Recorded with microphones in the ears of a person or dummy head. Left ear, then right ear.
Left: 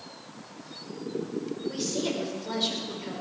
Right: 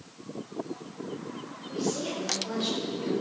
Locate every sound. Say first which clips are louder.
1.7 s a woman speaking: even; 35° left (ahead or behind), 6 m; by 3.1 s 20° left (ahead or behind), 5.5 m